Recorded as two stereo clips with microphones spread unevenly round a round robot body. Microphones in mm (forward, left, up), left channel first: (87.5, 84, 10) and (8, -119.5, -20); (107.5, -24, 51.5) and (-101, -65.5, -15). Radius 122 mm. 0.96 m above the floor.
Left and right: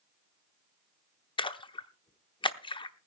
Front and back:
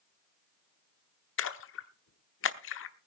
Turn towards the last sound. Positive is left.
turn(degrees=5)